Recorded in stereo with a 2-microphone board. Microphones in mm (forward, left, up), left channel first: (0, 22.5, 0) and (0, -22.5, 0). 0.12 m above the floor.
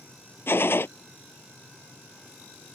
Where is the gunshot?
60° left (ahead or behind).